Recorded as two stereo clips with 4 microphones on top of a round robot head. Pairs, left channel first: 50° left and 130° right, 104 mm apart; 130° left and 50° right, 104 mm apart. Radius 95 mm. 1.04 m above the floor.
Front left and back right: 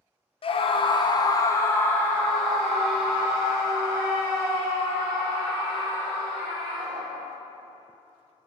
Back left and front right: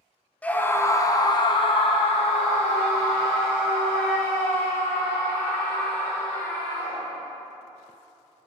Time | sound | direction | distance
0.4 | a scream | 55° left | 1.1 m